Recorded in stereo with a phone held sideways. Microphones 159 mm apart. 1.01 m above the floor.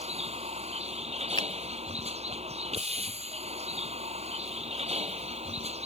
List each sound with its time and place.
0.0 s a vehicle: 40° right (ahead or behind)
1.4 s a finger snap: 30° left (ahead or behind)